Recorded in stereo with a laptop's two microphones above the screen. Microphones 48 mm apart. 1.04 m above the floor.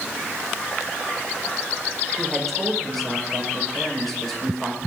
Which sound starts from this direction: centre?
A man speaking, at 2.2 s.